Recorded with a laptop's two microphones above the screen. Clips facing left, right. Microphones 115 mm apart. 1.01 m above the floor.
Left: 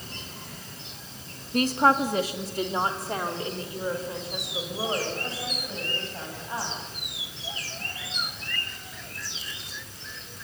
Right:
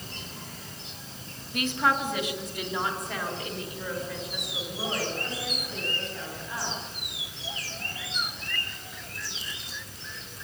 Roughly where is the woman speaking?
Left.